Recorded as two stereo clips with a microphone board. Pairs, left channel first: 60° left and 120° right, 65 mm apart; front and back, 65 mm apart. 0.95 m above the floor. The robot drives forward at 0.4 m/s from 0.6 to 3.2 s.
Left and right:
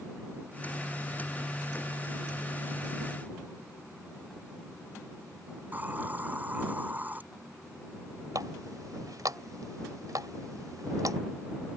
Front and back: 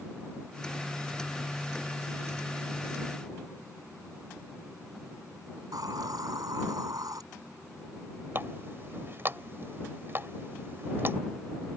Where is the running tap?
130° right.